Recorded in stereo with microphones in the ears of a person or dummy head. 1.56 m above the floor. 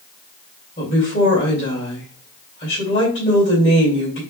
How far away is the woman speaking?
About 2.5 m.